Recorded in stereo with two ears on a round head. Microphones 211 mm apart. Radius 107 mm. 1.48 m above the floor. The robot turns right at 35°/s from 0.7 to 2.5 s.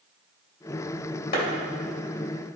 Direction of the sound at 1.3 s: 40° left (ahead or behind).